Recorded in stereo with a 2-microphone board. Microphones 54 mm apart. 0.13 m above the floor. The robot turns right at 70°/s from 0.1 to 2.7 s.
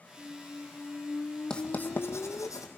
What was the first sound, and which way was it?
A squeak, 25° right.